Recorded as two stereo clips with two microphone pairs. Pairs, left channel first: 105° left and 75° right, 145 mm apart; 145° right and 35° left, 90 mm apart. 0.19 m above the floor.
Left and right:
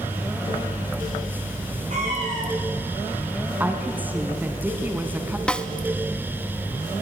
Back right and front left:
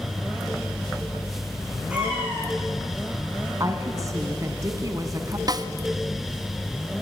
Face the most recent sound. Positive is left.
turn(degrees=25)